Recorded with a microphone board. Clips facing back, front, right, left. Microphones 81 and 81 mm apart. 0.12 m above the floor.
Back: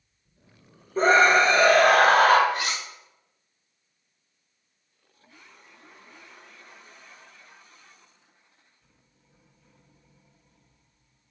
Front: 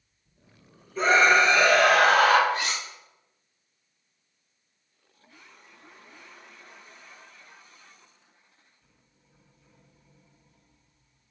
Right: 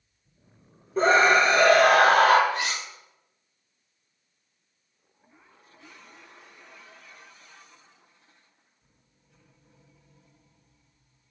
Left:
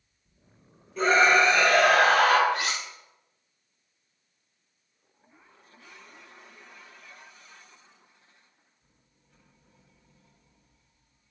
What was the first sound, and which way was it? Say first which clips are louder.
A scream: back 2 dB, right 2 dB; 135° right.